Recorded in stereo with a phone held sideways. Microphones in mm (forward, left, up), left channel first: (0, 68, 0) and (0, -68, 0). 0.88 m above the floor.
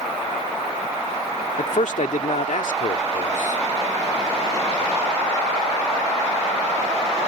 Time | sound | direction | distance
1.6 | a man speaking | 75° left (ahead or behind) | ?